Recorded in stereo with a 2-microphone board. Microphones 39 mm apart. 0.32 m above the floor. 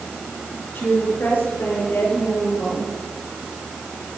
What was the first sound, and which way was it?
A woman speaking, 60° left (ahead or behind).